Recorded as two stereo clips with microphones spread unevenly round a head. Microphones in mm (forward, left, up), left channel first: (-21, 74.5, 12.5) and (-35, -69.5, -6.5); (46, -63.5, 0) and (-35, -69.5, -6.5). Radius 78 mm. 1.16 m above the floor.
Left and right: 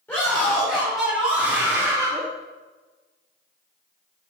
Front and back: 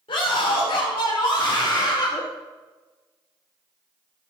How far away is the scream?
About 3.5 m.